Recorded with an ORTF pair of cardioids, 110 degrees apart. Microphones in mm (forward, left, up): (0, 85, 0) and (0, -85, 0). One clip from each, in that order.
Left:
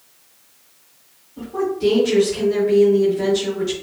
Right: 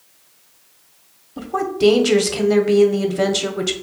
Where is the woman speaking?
65° right, 0.6 m.